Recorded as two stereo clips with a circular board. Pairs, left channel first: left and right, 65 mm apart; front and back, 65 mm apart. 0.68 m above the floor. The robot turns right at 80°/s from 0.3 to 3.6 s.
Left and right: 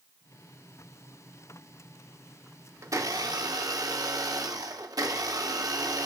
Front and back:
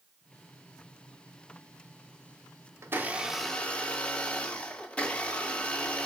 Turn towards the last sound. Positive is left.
turn(degrees=-70)